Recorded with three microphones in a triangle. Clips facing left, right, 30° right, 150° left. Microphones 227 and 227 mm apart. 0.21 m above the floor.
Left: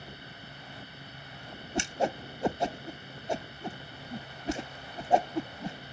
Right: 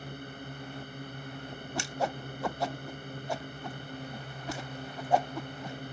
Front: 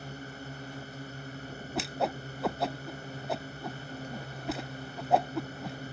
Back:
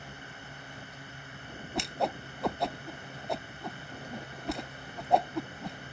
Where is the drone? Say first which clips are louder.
Right 6 dB, front 6 dB; 70° right.